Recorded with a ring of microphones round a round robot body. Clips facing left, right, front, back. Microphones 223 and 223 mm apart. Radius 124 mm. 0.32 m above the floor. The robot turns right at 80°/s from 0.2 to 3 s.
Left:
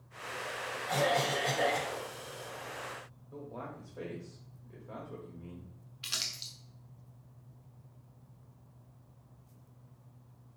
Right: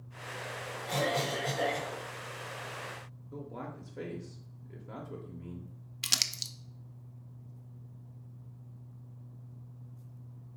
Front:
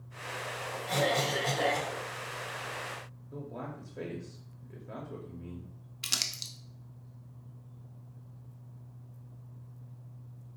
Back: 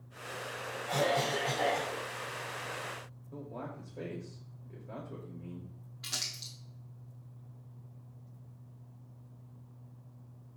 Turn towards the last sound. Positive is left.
turn(degrees=-60)